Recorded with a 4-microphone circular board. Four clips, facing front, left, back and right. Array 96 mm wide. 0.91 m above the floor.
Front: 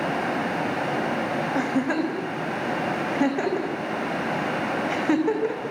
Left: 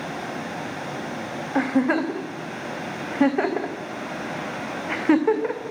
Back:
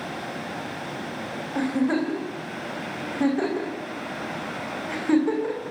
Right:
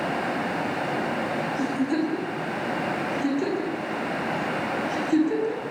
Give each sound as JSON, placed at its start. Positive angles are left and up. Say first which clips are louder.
{"t": 1.6, "sound": "a giggle", "louder": "left 6 dB, back 3 dB", "azimuth_deg": 85, "distance_m": 4.5}